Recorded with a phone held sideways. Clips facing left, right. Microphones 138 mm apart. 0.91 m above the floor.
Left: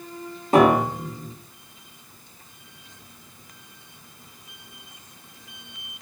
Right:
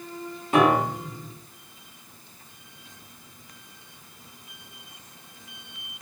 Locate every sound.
0.5 s a piano: 35° left (ahead or behind), 0.7 m